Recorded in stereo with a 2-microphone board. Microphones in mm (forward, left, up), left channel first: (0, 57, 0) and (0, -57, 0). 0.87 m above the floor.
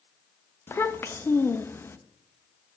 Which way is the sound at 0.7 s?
20° left (ahead or behind).